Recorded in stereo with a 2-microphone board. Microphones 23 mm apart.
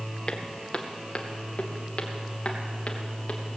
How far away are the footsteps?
About 1.6 m.